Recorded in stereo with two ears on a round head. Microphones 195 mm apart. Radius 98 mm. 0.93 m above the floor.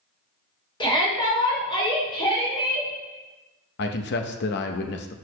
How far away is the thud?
No thud in this recording.